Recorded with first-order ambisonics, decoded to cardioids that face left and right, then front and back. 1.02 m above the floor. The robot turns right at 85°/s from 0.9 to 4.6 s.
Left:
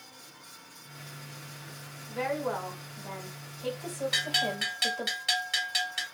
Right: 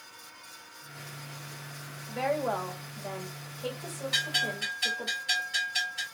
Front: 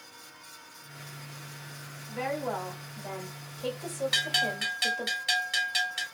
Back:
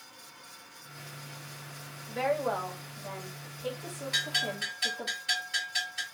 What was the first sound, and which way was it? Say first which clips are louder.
A woman speaking: right 2 dB, back 3 dB; 160° right.